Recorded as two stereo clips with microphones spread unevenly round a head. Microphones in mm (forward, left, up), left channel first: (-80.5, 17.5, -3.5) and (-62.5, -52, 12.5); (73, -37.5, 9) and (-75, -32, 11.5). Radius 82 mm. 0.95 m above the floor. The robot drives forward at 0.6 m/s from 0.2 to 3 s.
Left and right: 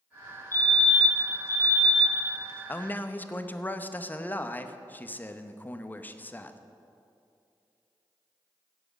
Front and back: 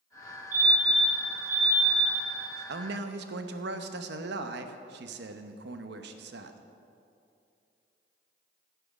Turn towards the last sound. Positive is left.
turn(degrees=165)